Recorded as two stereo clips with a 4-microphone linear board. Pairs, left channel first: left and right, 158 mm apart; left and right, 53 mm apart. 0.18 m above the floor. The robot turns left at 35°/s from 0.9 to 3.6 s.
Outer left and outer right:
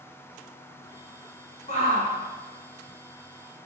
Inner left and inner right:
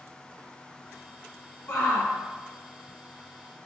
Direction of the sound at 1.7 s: 50° left (ahead or behind).